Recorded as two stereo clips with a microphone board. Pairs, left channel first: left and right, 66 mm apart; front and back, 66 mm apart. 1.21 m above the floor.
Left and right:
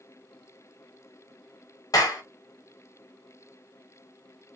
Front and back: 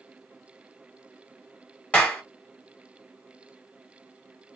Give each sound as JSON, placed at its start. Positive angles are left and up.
{"t": 1.9, "sound": "a clap", "azimuth_deg": 70, "distance_m": 1.2}